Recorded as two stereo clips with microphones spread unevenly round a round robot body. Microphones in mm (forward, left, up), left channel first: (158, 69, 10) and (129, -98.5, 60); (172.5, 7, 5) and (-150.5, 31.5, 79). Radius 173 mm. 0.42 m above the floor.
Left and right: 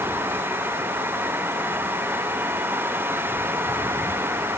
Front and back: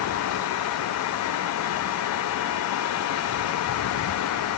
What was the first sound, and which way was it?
Only background noise.